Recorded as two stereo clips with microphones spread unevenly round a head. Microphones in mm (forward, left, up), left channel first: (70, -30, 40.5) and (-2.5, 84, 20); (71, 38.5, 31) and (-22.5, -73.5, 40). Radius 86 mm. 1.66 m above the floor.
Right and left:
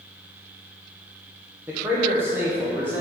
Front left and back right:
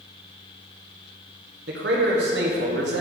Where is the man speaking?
155° right, 1.0 m.